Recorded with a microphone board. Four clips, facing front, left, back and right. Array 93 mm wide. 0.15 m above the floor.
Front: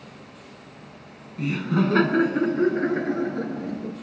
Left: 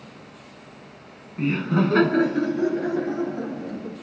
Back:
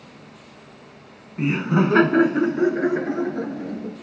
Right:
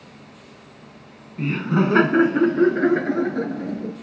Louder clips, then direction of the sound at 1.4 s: Right 1 dB, back 3 dB; straight behind.